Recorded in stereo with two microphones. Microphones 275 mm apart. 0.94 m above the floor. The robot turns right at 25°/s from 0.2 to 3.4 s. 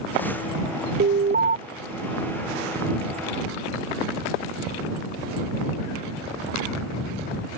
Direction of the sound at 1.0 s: 45° right (ahead or behind).